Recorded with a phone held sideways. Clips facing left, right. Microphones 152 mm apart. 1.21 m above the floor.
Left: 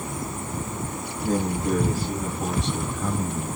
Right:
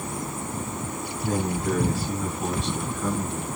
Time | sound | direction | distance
1.2 | a man speaking | 40° left (ahead or behind) | 4.5 m